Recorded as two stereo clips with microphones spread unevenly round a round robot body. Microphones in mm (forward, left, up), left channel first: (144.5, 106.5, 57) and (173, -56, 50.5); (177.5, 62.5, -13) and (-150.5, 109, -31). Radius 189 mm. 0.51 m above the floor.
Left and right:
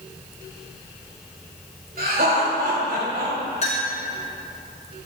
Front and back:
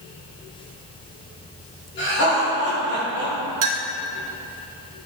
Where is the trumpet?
No trumpet in this recording.